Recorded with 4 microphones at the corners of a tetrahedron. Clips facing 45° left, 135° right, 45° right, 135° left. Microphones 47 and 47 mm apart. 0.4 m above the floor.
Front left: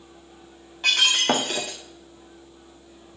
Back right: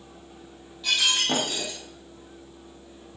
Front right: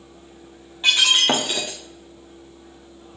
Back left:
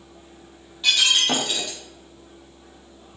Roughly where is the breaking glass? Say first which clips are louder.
Front left 4 dB, front right 2 dB; ahead.